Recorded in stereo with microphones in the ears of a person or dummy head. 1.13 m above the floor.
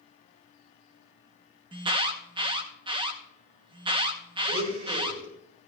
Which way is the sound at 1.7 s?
25° right (ahead or behind).